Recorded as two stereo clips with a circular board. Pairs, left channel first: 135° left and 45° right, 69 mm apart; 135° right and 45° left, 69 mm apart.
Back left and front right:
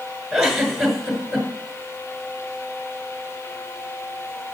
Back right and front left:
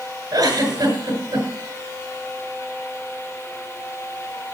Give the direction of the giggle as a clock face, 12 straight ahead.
10 o'clock.